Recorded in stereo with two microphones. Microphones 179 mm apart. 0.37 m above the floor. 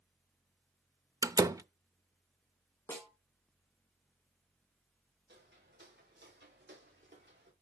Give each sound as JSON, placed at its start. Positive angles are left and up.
{"t": 1.2, "sound": "a door slam", "side_deg": -20, "distance_m": 0.5}
{"t": 2.9, "sound": "a snare drum", "side_deg": 15, "distance_m": 3.5}
{"t": 5.3, "sound": "footsteps", "side_deg": -85, "distance_m": 6.5}